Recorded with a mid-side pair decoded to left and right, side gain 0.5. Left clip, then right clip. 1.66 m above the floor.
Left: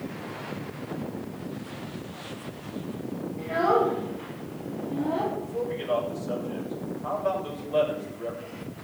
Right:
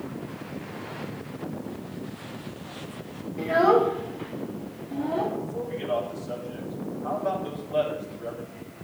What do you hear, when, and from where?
3.4 s a child speaking: 45° right, 1.6 m; by 5.3 s 5° left, 2.5 m
5.4 s a man speaking: 20° left, 6 m